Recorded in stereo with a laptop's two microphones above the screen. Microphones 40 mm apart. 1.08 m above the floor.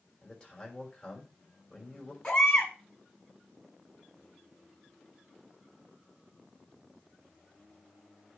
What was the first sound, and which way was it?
A man speaking, 25° left (ahead or behind).